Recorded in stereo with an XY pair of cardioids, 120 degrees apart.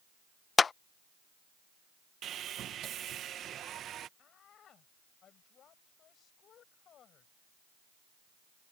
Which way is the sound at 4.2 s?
55° left.